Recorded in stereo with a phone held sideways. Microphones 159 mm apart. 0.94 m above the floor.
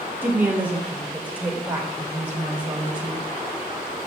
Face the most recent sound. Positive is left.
turn(degrees=-10)  # may be behind; listen again after turning